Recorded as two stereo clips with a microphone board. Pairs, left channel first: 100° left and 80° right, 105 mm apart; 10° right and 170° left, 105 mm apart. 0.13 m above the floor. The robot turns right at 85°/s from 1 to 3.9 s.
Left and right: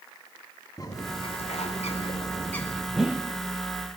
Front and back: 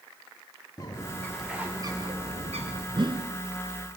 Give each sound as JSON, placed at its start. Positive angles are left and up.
{"t": 0.8, "sound": "a bird", "azimuth_deg": 45, "distance_m": 4.5}
{"t": 2.9, "sound": "a whoosh", "azimuth_deg": -170, "distance_m": 1.5}